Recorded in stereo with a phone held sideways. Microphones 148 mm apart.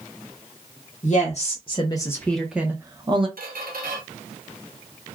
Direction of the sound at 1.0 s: 55° left (ahead or behind).